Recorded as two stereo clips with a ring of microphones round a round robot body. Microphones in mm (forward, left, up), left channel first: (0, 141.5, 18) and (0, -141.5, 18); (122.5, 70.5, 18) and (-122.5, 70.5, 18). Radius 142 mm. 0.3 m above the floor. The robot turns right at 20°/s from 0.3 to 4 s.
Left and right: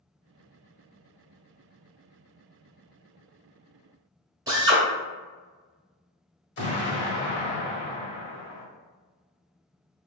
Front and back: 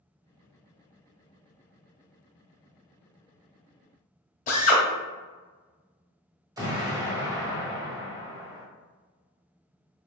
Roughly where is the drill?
Ahead right.